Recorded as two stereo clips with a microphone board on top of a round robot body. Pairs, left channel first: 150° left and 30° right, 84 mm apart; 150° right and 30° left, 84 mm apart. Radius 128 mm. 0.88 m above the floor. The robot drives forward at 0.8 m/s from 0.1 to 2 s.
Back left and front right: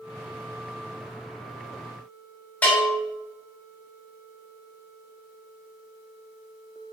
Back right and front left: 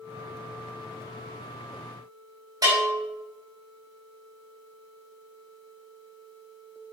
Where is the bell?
75° left, 6 m.